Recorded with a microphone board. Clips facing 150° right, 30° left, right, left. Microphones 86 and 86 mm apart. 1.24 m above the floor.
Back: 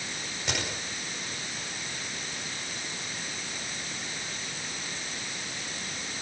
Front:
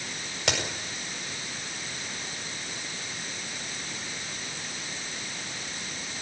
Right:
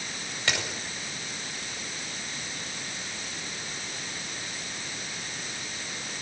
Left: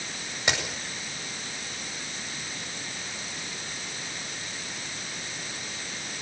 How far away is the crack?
About 8 m.